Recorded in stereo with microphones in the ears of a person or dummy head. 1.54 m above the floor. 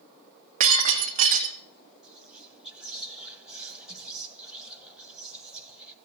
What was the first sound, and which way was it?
Breaking glass, 40° right (ahead or behind).